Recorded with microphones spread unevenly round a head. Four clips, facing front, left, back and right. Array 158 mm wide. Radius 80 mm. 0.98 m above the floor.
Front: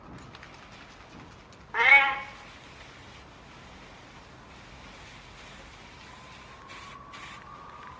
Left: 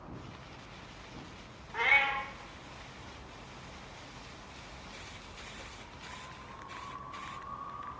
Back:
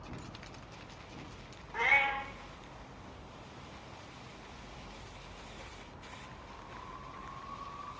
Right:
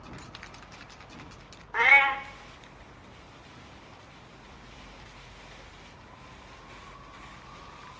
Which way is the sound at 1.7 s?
40° right.